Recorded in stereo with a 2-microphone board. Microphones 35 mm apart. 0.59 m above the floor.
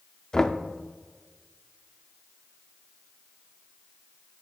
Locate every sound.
0.3 s knocking: 20° left (ahead or behind), 0.5 m